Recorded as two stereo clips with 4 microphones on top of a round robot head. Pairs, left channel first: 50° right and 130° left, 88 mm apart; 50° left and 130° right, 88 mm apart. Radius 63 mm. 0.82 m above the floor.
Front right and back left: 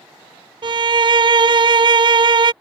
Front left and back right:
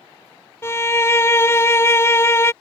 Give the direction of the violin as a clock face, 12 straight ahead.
8 o'clock.